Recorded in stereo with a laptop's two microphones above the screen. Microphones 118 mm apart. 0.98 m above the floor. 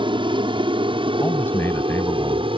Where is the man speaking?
20° left (ahead or behind).